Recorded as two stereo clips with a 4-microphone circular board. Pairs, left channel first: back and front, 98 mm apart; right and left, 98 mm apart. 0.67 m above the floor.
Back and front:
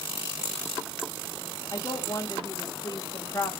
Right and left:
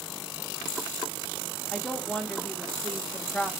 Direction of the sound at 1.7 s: 170° right.